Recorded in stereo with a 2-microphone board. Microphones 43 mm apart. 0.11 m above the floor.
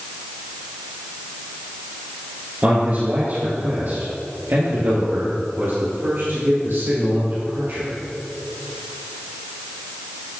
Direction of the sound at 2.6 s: 40° right (ahead or behind).